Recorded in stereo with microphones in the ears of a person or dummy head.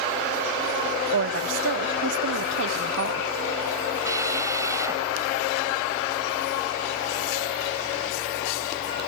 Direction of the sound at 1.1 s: 60° right (ahead or behind).